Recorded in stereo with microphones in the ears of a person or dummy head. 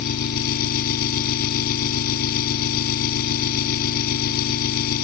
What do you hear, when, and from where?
0.0 s an engine running: 50° left (ahead or behind)